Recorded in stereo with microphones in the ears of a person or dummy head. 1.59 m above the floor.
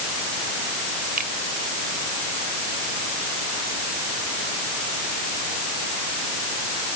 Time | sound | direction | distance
1.2 | a finger snap | 50° right (ahead or behind) | ?